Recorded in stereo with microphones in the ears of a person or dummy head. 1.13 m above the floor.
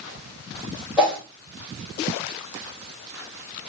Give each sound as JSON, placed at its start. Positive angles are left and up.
{"t": 1.0, "sound": "a whoosh", "side_deg": -5, "distance_m": 2.0}